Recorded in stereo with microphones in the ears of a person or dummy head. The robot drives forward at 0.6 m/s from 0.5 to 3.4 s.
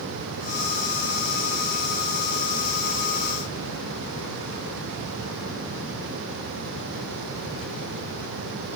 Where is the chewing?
No chewing in this recording.